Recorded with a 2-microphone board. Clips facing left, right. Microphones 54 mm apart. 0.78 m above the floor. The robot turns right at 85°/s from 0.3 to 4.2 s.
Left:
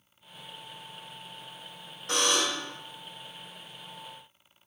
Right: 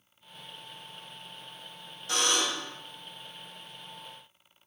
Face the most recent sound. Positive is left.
turn(degrees=-125)